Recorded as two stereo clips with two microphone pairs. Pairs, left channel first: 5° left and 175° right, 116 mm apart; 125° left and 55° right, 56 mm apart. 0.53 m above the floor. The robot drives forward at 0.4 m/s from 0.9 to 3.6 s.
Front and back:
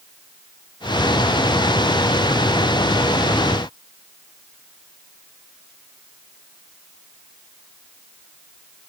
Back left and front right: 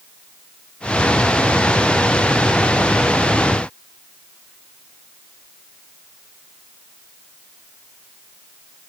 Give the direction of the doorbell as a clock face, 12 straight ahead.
I don't hear a doorbell.